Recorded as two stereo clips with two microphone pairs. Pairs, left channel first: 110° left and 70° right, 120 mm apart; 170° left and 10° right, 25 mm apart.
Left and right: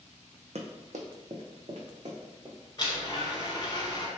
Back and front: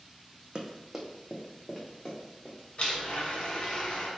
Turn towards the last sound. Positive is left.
turn(degrees=155)